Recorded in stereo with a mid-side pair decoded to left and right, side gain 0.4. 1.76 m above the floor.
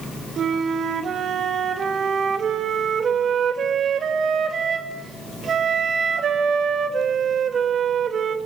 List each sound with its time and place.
0.4 s a flute: 60° right, 2.5 m